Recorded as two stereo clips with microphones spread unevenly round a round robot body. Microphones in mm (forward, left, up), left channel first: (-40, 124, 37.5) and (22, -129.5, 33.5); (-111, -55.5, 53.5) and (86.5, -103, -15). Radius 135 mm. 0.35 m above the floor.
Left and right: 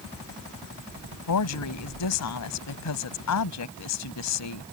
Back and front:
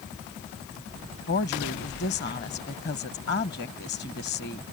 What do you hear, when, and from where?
1.3 s a woman speaking: 110° left